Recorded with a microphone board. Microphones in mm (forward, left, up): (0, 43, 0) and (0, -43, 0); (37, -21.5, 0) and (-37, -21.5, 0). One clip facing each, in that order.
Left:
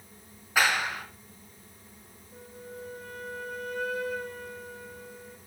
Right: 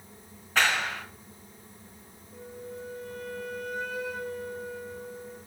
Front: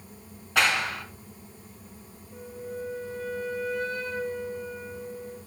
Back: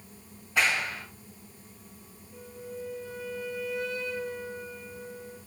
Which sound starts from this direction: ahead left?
A flute, at 2.3 s.